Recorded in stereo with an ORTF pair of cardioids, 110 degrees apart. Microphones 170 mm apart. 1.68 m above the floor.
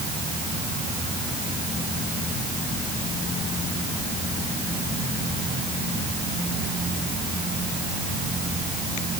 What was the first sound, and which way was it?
Only background noise.